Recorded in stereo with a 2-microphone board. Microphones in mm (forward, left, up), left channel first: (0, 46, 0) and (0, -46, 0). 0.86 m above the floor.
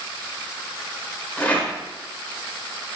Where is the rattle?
15° left (ahead or behind), 1.8 m.